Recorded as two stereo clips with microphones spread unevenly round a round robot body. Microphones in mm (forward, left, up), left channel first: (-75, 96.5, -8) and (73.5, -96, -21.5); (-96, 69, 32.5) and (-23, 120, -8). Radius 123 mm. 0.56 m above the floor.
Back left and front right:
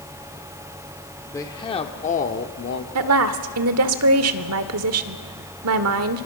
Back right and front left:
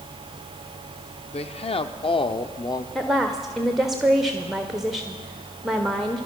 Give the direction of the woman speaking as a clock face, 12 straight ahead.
1 o'clock.